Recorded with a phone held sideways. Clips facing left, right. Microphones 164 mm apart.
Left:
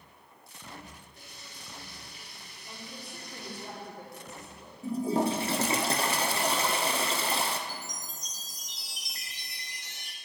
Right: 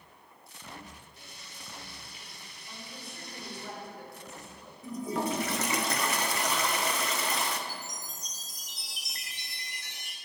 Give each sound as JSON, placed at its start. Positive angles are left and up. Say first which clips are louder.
{"t": 1.2, "sound": "frying", "louder": "even", "side_deg": 55, "distance_m": 3.5}
{"t": 2.7, "sound": "a woman speaking", "louder": "left 2 dB", "side_deg": 35, "distance_m": 3.0}
{"t": 4.8, "sound": "a toilet flushing", "louder": "left 5 dB", "side_deg": 30, "distance_m": 0.7}
{"t": 7.7, "sound": "a chime", "louder": "even", "side_deg": -50, "distance_m": 1.6}